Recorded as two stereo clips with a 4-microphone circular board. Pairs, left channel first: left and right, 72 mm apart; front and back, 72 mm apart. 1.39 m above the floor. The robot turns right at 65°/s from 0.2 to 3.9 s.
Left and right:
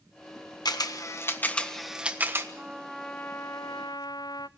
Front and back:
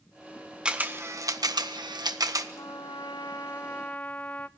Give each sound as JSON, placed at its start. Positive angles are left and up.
{"t": 0.7, "sound": "a camera shutter", "azimuth_deg": 105, "distance_m": 1.3}
{"t": 2.5, "sound": "a trumpet", "azimuth_deg": -20, "distance_m": 0.5}